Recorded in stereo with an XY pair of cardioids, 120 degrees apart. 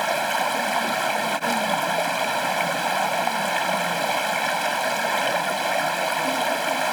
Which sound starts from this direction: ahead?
Running water, at 0.0 s.